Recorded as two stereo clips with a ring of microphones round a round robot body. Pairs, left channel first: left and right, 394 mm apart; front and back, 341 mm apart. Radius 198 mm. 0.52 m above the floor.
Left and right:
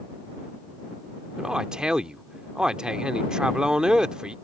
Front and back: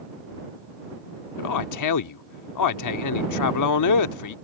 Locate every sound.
1.4 s a man speaking: 5° right